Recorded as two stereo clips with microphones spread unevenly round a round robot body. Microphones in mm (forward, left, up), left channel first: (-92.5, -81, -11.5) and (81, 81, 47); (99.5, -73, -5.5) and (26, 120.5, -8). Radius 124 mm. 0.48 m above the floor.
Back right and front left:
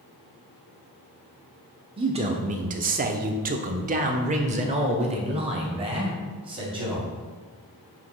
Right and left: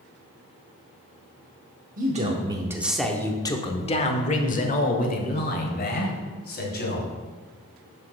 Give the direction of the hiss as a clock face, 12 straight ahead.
No hiss in this recording.